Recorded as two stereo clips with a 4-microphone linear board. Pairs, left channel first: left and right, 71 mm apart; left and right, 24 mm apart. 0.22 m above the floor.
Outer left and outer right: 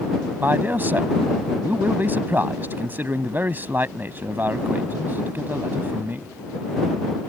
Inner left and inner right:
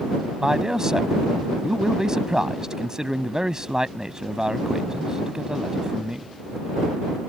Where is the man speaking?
30° right (ahead or behind).